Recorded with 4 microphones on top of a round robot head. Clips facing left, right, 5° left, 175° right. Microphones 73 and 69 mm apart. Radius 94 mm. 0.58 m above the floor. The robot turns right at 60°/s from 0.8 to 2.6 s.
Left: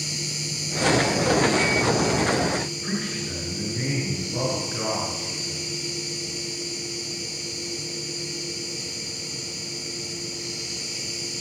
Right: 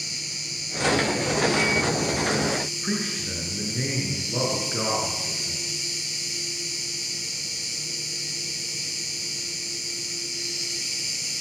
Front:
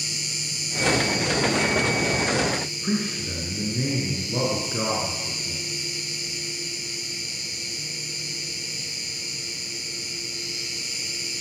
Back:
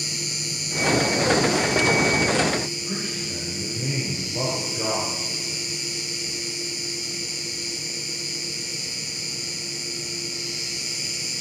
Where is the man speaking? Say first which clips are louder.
Even, front 4 dB; 20° right, 8.5 m.